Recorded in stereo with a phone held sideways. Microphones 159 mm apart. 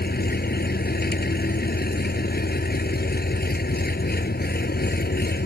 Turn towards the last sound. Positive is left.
turn(degrees=90)